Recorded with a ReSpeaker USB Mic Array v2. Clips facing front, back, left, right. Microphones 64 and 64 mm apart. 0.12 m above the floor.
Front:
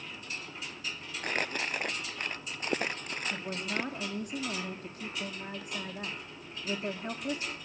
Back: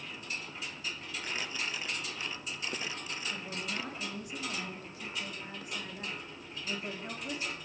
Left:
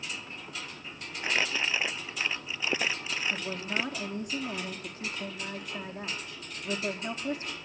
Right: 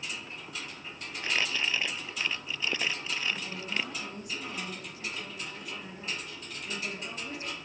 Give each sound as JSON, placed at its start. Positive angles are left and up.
{"t": 1.2, "sound": "crumpling", "azimuth_deg": 20, "distance_m": 0.5}
{"t": 3.3, "sound": "a woman speaking", "azimuth_deg": 40, "distance_m": 5.0}